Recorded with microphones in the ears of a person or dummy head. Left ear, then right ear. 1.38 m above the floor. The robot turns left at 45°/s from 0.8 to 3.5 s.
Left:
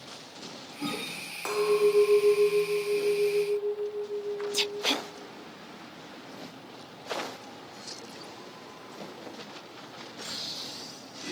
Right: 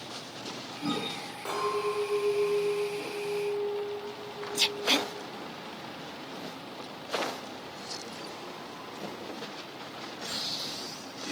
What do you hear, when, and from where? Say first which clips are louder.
1.4 s a clink: left 6 dB; 110° left, 0.6 m; by 4.8 s 15° left, 0.6 m